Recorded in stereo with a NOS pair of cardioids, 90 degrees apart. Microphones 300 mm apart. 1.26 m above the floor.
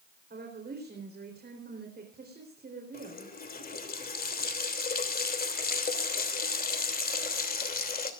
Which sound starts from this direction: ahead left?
A running tap, at 2.9 s.